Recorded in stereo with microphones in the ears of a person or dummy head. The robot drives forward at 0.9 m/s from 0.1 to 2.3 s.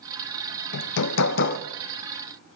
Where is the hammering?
70° left (ahead or behind), 0.9 m; by 1.6 s 50° left (ahead or behind), 1.2 m.